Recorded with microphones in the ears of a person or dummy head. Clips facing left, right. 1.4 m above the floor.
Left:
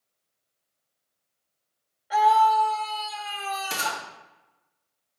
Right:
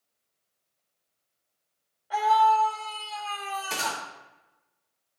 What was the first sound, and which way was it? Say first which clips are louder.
A scream: left 2 dB; 20° left (ahead or behind).